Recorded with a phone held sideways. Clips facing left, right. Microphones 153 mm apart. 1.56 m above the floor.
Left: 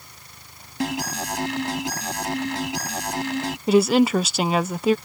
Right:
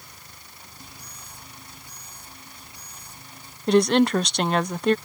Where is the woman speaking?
5° left (ahead or behind).